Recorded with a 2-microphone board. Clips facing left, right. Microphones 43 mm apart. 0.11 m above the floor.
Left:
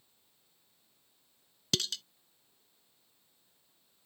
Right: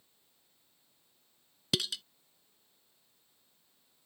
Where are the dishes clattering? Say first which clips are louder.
Right 1 dB; 10° right (ahead or behind).